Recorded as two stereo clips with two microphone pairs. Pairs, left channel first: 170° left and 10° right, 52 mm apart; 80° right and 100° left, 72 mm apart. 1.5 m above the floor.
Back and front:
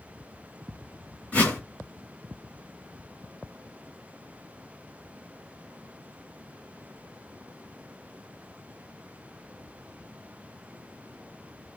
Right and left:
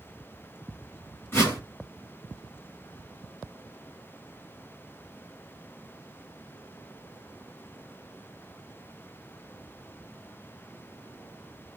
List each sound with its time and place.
1.3 s a whoosh: 135° right, 2 m